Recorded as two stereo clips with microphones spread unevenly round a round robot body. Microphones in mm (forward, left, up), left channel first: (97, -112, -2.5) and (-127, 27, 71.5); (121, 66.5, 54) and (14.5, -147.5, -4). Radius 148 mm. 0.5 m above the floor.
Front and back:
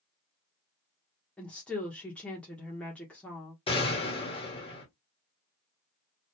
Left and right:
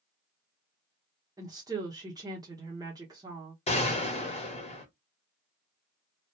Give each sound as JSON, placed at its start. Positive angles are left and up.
{"t": 1.4, "sound": "a woman speaking", "azimuth_deg": -85, "distance_m": 0.9}
{"t": 3.7, "sound": "a gunshot", "azimuth_deg": -5, "distance_m": 1.4}